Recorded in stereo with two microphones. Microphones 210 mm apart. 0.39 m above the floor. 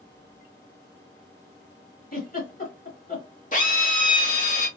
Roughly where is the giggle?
Left.